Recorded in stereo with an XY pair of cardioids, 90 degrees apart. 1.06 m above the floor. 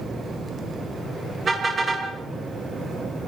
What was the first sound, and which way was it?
A car horn, 40° right.